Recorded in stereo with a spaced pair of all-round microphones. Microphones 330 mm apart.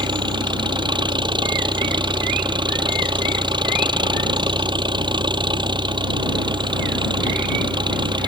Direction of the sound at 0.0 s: 15° right (ahead or behind).